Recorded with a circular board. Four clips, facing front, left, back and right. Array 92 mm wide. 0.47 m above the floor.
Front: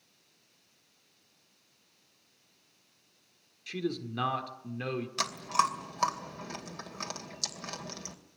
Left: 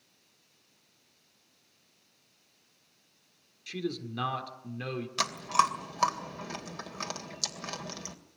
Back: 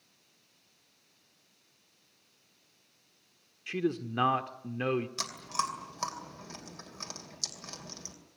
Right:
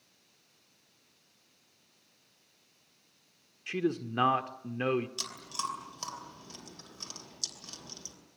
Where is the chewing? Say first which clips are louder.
Left 12 dB, front 6 dB; 65° left, 2.5 m.